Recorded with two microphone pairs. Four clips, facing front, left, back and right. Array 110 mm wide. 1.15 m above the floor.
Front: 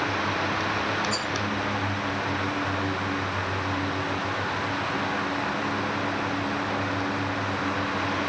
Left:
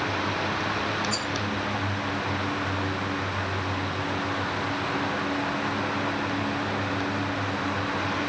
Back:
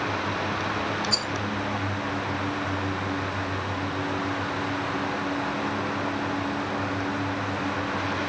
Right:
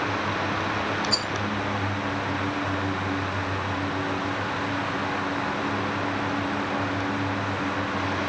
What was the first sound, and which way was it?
A rattle, 140° right.